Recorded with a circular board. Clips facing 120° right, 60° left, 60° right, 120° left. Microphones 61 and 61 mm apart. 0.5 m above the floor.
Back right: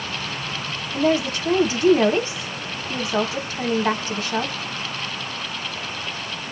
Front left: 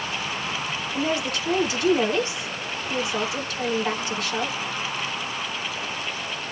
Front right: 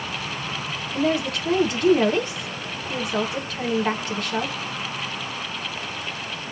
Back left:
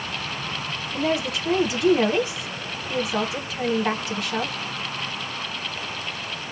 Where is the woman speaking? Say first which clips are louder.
Back right 6 dB, front right 2 dB; 155° right, 1.1 m.